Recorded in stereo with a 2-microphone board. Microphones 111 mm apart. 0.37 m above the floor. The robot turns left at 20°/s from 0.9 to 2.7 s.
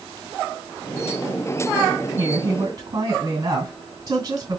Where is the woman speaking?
55° right (ahead or behind), 2 m; by 4.6 s 45° right (ahead or behind), 2 m.